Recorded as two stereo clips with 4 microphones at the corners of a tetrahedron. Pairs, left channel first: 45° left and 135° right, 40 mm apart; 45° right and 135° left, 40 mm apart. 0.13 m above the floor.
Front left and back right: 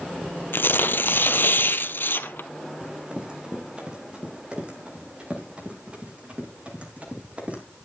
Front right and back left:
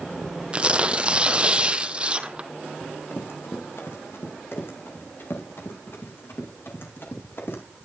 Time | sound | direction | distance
0.5 | tearing paper | 70° left | 0.9 m
2.8 | running footsteps | 70° right | 4.5 m